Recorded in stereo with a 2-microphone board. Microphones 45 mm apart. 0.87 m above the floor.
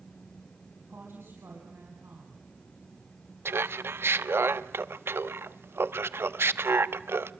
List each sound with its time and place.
0.9 s a woman speaking: 70° right (ahead or behind), 5.5 m
3.5 s laughter: 70° right (ahead or behind), 1.1 m